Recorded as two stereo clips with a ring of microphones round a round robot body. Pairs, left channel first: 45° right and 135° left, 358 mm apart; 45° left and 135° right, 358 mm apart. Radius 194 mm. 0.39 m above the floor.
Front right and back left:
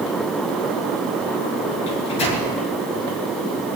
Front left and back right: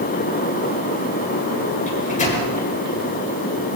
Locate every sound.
1.9 s a microwave: 25° right, 6 m